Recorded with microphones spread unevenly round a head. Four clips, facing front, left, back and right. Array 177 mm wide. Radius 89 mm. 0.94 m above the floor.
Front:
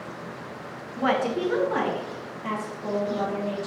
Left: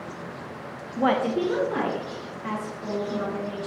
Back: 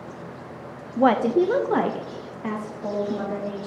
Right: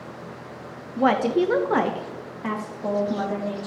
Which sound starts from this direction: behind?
A woman speaking, at 1.0 s.